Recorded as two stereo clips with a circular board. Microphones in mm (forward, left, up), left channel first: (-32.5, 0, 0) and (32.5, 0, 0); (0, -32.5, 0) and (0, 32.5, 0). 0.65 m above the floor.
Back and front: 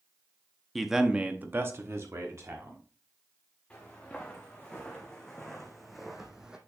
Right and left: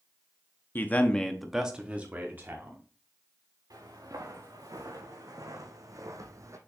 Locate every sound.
0.8 s a man speaking: 90° right, 0.8 m; by 2.8 s 40° left, 1.5 m
3.7 s footsteps: 110° left, 2.5 m; by 6.6 s 75° left, 1.0 m